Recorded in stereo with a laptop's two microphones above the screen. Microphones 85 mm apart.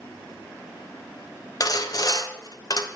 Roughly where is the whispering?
I don't hear whispering.